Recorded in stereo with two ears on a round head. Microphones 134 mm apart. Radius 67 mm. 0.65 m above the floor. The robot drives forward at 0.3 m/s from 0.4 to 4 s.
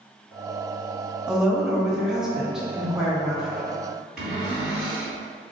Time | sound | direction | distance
1.3 | a woman speaking | 5° right (ahead or behind) | 0.5 m
4.2 | a cupboard door | centre (ahead or behind) | 1.9 m